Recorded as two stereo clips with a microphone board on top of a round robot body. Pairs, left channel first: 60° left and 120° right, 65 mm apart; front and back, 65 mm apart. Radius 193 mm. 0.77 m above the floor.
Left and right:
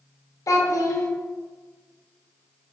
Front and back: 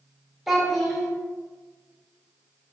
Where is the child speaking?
95° left, 0.8 m.